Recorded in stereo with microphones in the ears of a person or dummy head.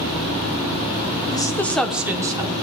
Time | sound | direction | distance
1.3 | a woman speaking | 25° left (ahead or behind) | 0.8 m